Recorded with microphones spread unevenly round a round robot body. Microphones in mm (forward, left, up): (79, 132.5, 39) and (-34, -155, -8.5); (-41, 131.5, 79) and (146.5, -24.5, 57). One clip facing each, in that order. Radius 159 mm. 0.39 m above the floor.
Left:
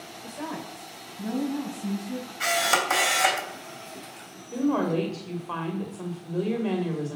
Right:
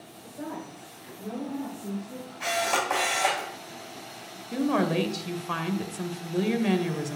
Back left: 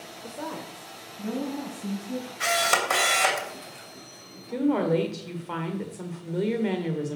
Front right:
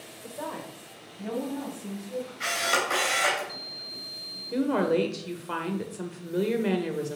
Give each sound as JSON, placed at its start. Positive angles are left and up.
{"t": 0.2, "sound": "a woman speaking", "azimuth_deg": 75, "distance_m": 1.6}
{"t": 2.4, "sound": "a camera shutter", "azimuth_deg": 125, "distance_m": 3.0}
{"t": 4.5, "sound": "a woman speaking", "azimuth_deg": -115, "distance_m": 1.8}